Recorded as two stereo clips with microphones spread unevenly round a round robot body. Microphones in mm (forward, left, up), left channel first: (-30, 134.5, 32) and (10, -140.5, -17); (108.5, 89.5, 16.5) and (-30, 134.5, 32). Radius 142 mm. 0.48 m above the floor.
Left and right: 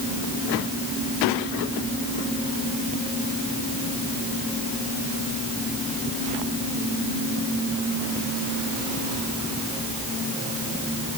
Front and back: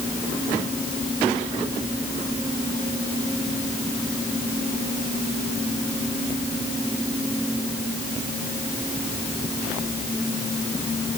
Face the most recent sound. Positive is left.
No sound to turn to.